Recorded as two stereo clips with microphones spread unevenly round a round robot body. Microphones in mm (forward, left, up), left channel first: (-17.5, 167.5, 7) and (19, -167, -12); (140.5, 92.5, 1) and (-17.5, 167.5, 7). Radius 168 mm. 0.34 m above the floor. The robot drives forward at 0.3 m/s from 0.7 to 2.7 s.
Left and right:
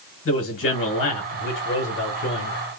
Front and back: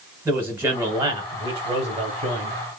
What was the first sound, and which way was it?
A man speaking, 85° left.